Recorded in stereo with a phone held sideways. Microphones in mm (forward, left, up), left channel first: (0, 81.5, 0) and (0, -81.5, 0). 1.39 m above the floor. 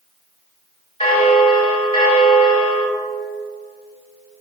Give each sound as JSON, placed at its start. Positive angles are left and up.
{"t": 1.0, "sound": "a bell", "side_deg": 35, "distance_m": 2.0}